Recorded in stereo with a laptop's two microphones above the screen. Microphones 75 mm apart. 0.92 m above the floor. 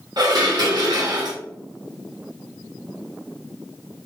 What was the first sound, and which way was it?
Dishes clattering, 65° right (ahead or behind).